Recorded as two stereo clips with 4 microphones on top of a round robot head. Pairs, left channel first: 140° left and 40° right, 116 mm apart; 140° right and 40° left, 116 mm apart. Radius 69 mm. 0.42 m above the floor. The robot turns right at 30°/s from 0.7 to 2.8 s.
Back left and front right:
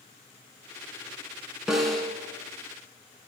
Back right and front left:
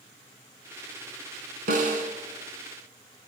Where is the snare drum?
45° left, 2.5 m; by 2.1 s 55° left, 2.5 m.